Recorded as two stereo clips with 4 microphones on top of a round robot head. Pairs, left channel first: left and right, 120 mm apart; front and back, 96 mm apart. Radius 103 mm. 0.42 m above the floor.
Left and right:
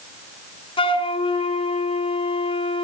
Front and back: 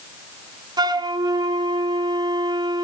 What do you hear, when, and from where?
0.8 s a flute: 135° left, 1.4 m